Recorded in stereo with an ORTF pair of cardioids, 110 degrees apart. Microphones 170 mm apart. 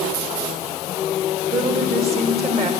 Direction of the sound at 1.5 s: 35° right.